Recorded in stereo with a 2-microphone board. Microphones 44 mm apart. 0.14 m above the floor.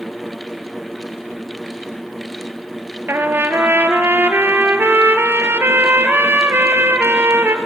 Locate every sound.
3.1 s a trumpet: 60° right (ahead or behind), 1.2 m